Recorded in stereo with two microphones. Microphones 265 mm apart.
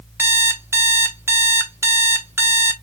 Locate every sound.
0.2 s an alarm clock: 10° right (ahead or behind), 0.5 m